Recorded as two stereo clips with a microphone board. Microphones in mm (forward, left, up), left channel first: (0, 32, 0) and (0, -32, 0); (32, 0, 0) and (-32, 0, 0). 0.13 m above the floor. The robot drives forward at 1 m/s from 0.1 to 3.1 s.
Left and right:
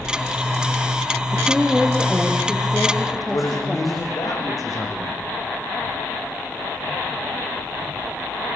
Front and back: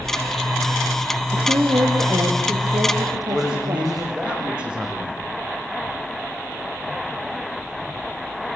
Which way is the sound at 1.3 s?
175° right.